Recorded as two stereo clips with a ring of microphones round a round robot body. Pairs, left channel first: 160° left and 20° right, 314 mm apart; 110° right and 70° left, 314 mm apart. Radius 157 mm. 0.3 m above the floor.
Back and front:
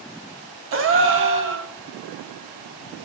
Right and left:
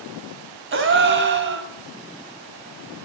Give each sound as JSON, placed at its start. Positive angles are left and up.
{"t": 0.7, "sound": "a gasp", "azimuth_deg": 20, "distance_m": 2.0}